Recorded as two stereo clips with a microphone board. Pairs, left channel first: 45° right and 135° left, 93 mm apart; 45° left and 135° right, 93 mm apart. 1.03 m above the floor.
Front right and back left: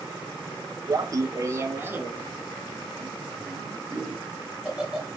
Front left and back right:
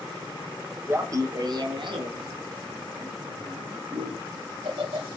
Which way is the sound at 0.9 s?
165° left.